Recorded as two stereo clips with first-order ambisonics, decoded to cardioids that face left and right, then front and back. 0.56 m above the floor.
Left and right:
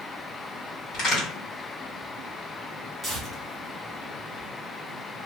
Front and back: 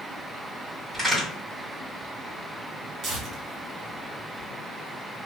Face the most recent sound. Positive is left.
turn(degrees=-165)